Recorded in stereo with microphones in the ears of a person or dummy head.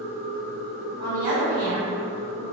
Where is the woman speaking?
30° right (ahead or behind), 1.2 m.